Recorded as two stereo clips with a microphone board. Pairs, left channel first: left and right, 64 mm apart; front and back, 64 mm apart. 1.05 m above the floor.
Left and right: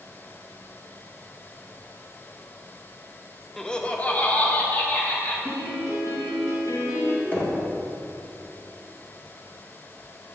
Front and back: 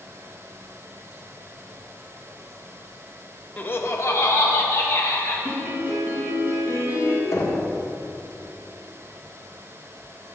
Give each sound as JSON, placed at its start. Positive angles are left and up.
{"t": 3.6, "sound": "laughter", "azimuth_deg": 15, "distance_m": 0.7}
{"t": 5.5, "sound": "a piano", "azimuth_deg": 130, "distance_m": 2.5}
{"t": 7.3, "sound": "knocking", "azimuth_deg": 30, "distance_m": 1.6}